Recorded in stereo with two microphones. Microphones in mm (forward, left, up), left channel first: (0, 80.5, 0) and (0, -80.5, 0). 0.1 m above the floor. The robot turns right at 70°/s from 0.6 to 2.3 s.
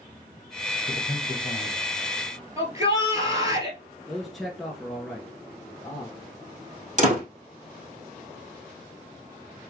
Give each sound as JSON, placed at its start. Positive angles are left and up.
{"t": 0.9, "sound": "a man speaking", "azimuth_deg": 90, "distance_m": 3.0}
{"t": 2.6, "sound": "a shout", "side_deg": -20, "distance_m": 2.0}
{"t": 4.1, "sound": "a man speaking", "side_deg": 0, "distance_m": 1.1}
{"t": 7.0, "sound": "a door slam", "side_deg": -50, "distance_m": 2.5}